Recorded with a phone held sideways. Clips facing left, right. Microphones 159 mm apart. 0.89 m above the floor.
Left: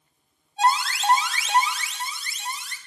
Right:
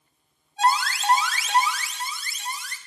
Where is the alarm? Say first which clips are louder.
Even; 25° left (ahead or behind), 1.5 m.